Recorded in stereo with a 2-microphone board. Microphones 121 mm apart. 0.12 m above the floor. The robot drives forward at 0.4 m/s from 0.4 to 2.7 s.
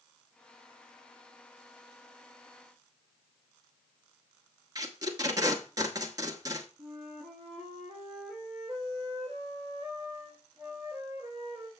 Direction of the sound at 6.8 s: 40° right (ahead or behind).